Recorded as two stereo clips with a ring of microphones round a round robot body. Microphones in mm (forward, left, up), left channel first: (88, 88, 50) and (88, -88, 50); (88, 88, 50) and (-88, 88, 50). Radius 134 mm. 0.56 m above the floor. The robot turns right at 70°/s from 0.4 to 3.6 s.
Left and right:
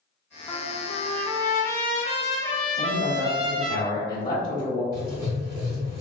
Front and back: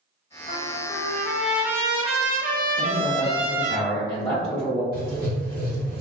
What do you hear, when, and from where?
0.5 s a trumpet: 20° left, 0.8 m; by 3.8 s 120° right, 0.8 m
2.8 s a man speaking: straight ahead, 1.4 m; by 4.8 s 60° left, 1.4 m
4.9 s writing: 85° right, 1.5 m